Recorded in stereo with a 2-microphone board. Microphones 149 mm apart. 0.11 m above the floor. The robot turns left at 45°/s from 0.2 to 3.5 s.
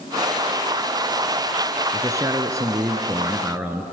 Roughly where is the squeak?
No squeak in this recording.